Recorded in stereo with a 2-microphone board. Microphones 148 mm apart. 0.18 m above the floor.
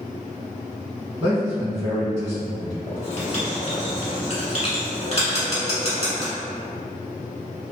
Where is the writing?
40° left (ahead or behind), 0.9 m.